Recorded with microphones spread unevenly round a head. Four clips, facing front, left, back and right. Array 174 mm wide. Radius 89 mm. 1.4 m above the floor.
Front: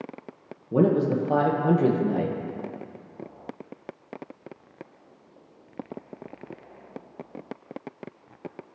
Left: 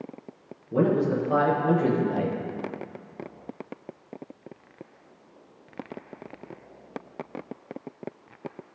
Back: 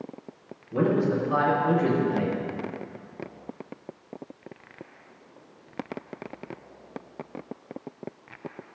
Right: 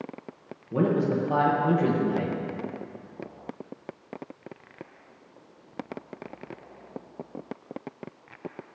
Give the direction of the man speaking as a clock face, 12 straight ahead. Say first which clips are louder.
Left 1 dB, front 2 dB; 12 o'clock.